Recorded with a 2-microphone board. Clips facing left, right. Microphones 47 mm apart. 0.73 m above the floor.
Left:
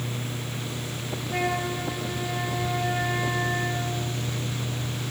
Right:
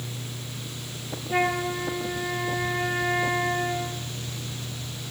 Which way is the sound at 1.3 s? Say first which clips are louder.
Right 3 dB; 20° right (ahead or behind).